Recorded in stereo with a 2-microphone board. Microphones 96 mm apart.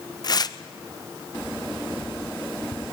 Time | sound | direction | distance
0.2 | tearing paper | 45° left (ahead or behind) | 0.7 m